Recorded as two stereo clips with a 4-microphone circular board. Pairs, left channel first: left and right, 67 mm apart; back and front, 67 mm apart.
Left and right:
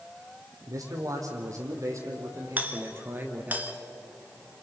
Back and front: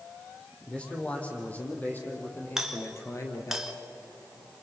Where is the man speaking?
110° right, 5 m; by 3.6 s 150° right, 3 m.